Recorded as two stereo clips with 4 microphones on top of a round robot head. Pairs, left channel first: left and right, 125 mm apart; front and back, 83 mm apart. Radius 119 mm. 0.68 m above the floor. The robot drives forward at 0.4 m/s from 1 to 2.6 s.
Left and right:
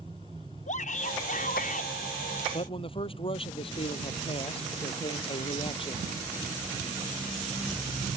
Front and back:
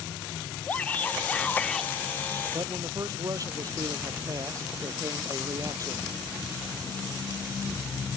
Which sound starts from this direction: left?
A shout, at 0.7 s.